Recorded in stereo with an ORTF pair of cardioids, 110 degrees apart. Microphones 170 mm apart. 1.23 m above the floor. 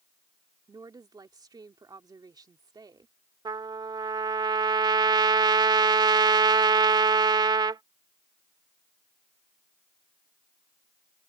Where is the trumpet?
25° right.